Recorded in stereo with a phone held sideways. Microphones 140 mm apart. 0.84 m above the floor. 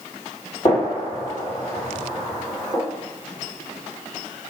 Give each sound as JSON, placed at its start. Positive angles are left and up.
{"t": 0.7, "sound": "a gunshot", "side_deg": 35, "distance_m": 1.9}